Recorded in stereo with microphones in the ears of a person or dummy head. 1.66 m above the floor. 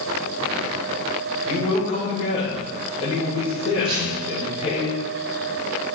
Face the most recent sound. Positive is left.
turn(degrees=-35)  # may be behind; listen again after turning